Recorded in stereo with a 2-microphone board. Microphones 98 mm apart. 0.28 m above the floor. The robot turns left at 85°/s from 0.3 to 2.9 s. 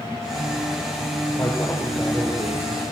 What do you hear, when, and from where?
1.4 s a man speaking: 45° left, 5.5 m; by 2.8 s 80° right, 5.5 m